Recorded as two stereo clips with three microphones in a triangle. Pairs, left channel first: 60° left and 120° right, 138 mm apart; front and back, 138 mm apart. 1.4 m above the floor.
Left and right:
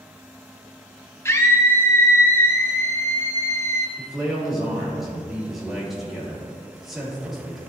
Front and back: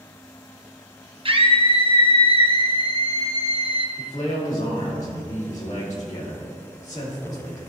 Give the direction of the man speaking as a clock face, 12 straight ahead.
1 o'clock.